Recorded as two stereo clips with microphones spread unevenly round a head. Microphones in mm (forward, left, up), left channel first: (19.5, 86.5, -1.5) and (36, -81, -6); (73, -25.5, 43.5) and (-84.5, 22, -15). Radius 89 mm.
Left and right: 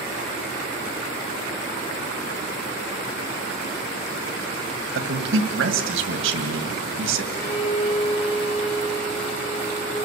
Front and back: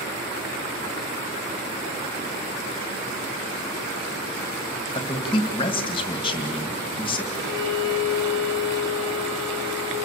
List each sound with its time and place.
5.0 s a man speaking: 75° right, 2.0 m
7.3 s a violin: 145° left, 4 m